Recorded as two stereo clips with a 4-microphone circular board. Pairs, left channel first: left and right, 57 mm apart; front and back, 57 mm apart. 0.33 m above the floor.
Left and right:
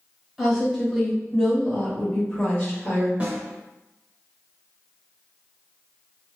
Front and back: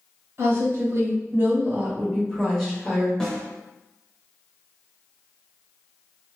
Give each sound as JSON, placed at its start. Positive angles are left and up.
{"t": 0.4, "sound": "a woman speaking", "azimuth_deg": -165, "distance_m": 1.5}
{"t": 3.2, "sound": "a snare drum", "azimuth_deg": -65, "distance_m": 1.0}